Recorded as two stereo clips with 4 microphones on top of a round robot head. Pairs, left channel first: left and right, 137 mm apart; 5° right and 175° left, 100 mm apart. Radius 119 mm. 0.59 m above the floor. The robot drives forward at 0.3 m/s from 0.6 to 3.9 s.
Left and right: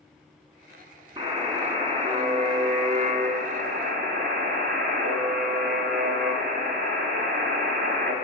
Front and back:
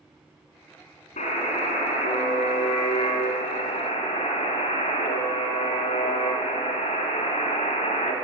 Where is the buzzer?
25° right, 1.3 m; by 8.1 s 55° right, 0.7 m.